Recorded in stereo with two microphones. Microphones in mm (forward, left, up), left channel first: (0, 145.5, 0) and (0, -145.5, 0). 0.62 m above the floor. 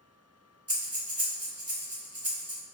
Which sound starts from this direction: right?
Breathing, at 0.7 s.